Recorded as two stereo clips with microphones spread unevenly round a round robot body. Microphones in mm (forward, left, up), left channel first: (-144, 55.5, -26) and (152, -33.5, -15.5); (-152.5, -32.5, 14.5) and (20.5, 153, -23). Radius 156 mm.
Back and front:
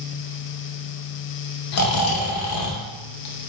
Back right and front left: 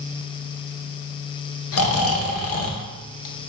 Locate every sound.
1.7 s snoring: 165° right, 0.7 m